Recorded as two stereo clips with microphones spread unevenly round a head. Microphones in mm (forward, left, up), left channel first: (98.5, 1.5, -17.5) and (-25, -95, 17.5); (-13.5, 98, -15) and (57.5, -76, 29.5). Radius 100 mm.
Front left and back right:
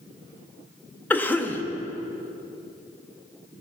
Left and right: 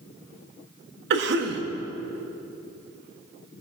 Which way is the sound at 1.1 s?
40° right.